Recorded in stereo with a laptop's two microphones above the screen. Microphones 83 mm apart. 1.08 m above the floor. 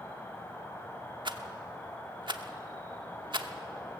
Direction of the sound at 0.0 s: 25° left (ahead or behind).